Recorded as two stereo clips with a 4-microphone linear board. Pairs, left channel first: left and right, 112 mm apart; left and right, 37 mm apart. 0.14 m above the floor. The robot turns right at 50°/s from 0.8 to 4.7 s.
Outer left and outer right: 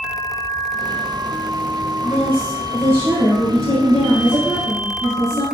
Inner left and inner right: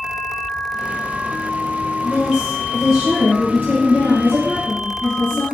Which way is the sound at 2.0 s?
30° right.